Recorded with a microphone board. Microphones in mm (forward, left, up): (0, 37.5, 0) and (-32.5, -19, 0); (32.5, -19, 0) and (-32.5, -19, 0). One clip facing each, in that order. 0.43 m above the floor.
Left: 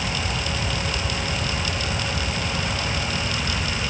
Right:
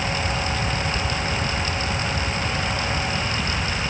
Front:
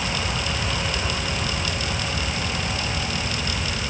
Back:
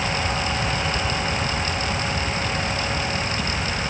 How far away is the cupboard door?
I don't hear a cupboard door.